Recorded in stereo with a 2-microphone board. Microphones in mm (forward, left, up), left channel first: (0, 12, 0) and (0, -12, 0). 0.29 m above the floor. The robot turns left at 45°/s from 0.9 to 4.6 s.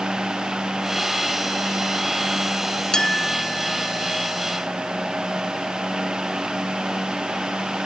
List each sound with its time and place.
2.9 s a clink: 30° left; by 7.8 s 45° right